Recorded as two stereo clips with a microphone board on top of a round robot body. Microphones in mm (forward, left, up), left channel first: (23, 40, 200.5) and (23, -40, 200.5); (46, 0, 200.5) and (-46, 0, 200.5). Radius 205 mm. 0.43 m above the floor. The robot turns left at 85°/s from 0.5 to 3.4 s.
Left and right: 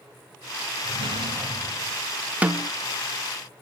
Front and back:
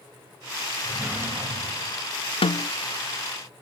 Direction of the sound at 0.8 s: 80° right.